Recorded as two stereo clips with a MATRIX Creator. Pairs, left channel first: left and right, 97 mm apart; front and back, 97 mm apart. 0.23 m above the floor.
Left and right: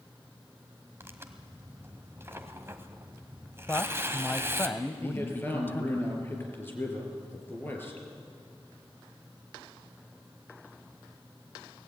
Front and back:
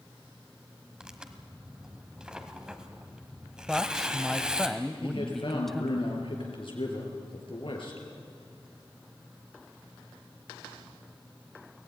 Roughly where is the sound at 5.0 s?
Ahead left.